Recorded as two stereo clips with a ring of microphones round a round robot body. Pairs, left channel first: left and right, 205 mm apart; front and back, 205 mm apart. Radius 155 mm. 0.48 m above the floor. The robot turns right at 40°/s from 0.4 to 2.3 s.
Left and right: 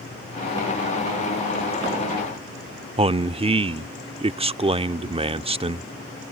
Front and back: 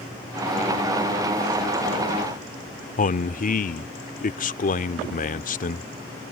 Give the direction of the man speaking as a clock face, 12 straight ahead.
1 o'clock.